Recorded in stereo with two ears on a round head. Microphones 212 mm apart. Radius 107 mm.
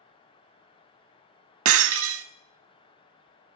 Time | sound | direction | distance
1.6 | breaking glass | 60° right (ahead or behind) | 0.6 m